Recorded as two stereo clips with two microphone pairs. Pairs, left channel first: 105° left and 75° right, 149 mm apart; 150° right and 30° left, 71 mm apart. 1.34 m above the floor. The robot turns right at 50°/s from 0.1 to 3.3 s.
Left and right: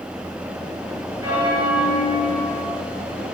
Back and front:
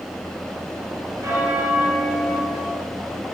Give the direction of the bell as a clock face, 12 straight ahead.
12 o'clock.